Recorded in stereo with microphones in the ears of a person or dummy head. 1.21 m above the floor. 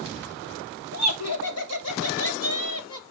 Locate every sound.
0.9 s laughter: 85° left, 3 m; by 3.0 s 80° left, 2 m